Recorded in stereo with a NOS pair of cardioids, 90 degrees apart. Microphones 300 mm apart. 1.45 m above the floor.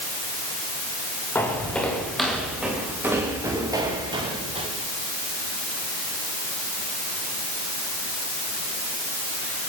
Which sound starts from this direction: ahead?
Footsteps, at 1.4 s.